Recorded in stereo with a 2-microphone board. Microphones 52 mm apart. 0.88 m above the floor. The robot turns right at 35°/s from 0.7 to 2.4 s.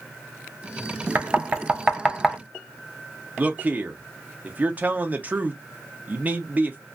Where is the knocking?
35° right (ahead or behind), 0.6 m; by 2.4 s centre (ahead or behind), 0.6 m.